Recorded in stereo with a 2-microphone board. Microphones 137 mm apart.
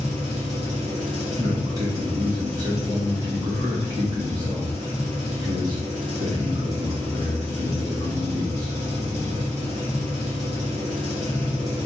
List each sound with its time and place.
0.0 s an engine running: 50° right (ahead or behind), 1.9 m
1.4 s a man speaking: 30° right (ahead or behind), 1.9 m